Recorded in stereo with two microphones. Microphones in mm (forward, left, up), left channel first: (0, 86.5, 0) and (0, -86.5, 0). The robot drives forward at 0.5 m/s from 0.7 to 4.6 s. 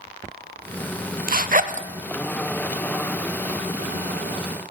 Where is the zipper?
55° right (ahead or behind), 0.5 m; by 1.9 s 45° right (ahead or behind), 0.6 m.